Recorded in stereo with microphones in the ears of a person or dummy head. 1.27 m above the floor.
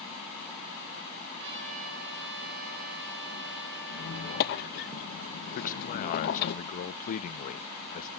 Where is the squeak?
55° left (ahead or behind), 1.1 m.